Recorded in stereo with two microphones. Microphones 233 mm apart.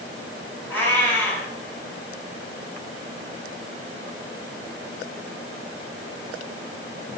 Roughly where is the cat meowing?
Centre.